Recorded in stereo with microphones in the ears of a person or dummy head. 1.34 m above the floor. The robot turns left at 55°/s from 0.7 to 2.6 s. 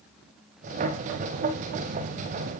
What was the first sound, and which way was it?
Only background noise.